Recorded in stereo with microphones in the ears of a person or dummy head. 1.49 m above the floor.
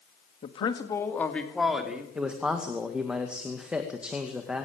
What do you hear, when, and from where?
0.4 s a man speaking: 40° left (ahead or behind), 2 m; by 2.0 s 5° right (ahead or behind), 3.5 m
2.1 s a man speaking: 5° right (ahead or behind), 2.0 m